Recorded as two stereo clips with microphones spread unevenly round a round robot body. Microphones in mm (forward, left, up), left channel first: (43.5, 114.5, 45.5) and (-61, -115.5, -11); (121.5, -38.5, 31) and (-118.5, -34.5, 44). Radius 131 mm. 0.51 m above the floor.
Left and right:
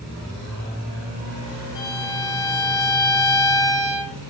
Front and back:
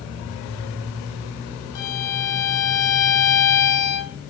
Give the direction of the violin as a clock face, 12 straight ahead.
12 o'clock.